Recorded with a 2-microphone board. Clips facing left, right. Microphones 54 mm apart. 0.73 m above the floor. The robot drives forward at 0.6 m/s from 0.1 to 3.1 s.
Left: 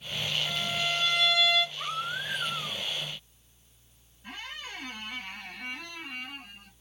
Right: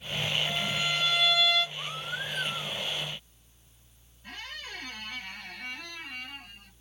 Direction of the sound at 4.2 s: 20° left (ahead or behind).